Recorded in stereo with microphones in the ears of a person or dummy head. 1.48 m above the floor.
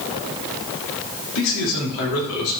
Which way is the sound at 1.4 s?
70° left (ahead or behind).